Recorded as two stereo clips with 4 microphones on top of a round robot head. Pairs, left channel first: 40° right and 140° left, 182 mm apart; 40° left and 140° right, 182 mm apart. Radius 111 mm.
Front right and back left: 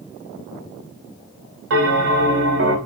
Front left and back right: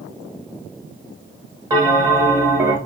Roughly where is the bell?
Behind left.